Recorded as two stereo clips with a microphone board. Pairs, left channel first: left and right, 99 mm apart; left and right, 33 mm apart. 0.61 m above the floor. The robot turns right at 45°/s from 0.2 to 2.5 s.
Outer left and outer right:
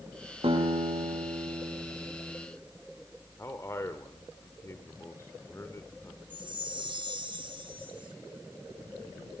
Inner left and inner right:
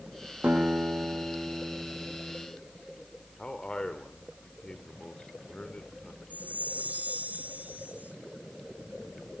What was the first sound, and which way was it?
A guitar, 105° right.